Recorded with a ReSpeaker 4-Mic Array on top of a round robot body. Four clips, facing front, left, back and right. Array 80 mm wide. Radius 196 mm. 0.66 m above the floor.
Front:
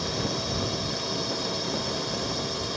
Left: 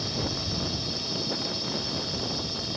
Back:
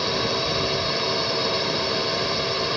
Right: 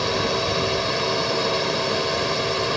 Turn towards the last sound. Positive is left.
turn(degrees=-120)